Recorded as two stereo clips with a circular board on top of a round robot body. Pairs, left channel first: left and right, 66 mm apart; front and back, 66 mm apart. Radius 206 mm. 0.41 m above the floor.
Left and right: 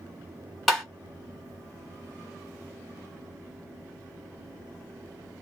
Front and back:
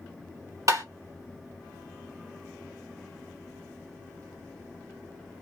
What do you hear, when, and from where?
0.7 s tapping: 175° left, 2 m